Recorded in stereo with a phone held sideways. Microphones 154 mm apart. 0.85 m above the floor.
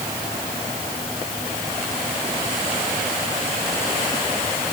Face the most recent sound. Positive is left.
No sound to turn to.